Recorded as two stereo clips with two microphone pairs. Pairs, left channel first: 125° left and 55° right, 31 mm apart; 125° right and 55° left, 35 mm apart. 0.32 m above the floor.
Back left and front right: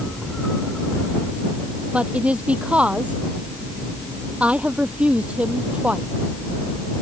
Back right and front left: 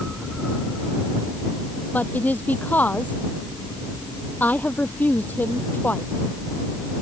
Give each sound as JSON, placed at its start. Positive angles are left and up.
{"t": 1.9, "sound": "a woman speaking", "azimuth_deg": -100}